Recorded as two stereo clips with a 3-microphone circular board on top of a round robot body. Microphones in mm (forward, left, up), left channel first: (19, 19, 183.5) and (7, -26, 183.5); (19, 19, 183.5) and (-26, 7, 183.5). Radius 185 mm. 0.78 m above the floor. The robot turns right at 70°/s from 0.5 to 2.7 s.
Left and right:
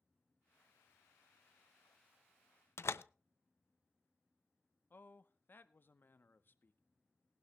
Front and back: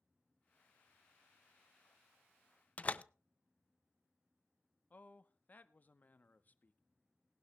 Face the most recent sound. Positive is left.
turn(degrees=55)